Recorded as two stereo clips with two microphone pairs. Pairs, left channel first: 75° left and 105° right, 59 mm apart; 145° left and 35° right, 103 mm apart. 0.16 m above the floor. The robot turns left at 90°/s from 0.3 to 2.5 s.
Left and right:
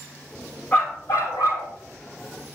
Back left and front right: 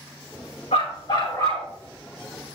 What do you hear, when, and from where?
0.7 s a dog barking: 145° left, 4.5 m; by 1.7 s 60° left, 4.5 m